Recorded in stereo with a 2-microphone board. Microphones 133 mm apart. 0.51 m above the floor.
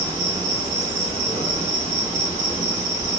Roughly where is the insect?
Left.